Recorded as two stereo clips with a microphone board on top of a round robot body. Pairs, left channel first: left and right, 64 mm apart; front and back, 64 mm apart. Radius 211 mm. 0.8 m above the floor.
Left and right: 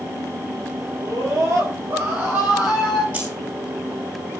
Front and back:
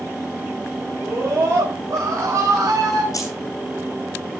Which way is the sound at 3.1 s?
30° right.